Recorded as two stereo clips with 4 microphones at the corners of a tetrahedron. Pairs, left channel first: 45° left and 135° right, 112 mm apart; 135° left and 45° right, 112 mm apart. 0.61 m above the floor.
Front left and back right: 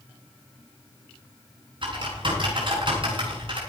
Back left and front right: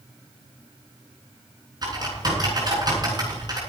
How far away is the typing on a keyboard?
About 7.5 m.